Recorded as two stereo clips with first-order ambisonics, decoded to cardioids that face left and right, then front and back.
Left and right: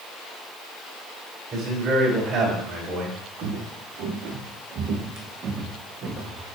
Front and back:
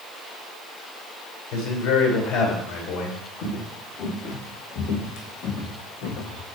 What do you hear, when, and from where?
1.5 s a man speaking: 30° right, 3.5 m
3.4 s footsteps: 55° right, 3 m; by 6.5 s 15° right, 1.9 m